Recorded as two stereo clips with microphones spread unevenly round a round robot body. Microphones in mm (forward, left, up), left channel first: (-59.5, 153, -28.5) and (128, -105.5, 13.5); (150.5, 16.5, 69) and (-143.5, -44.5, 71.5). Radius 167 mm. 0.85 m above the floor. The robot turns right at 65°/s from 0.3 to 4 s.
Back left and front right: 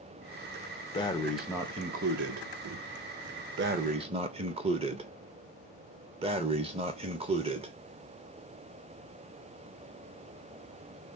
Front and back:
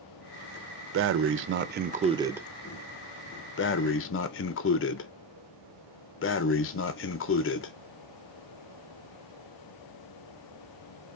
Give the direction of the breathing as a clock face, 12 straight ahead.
6 o'clock.